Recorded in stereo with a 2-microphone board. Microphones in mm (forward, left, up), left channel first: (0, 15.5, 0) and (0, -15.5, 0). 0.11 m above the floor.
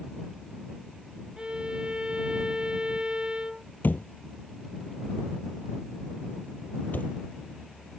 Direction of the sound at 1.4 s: 25° right (ahead or behind).